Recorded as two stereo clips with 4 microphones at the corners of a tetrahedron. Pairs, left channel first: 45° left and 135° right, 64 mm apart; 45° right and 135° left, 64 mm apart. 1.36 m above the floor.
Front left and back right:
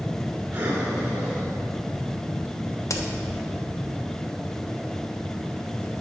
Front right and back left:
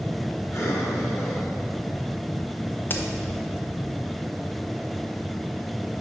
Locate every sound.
0.5 s breathing: 80° right, 1.5 m
2.9 s a crack: 10° left, 0.7 m